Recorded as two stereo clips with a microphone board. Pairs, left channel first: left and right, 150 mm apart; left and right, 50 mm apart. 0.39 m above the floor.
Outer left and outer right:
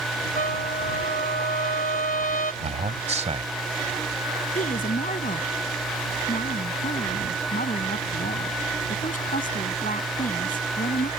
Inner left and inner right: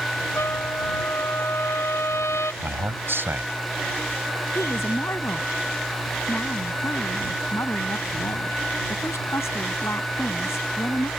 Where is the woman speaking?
70° left (ahead or behind).